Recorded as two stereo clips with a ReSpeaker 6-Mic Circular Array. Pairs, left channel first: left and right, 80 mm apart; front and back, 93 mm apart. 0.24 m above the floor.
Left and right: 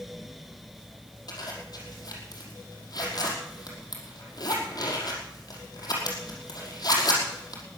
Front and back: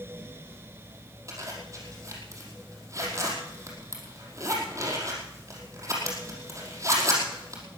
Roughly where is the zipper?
Behind left.